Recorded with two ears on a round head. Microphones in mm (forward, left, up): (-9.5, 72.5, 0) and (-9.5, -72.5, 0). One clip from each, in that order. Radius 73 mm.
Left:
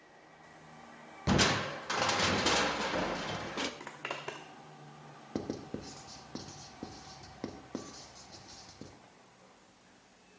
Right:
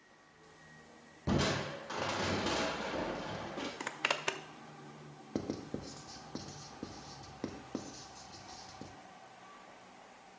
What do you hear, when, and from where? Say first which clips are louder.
1.3 s crushing: left 5 dB; 55° left (ahead or behind), 0.6 m
3.8 s a zipper: right 6 dB; 80° right, 0.7 m
5.3 s writing: even; 5° left (ahead or behind), 0.8 m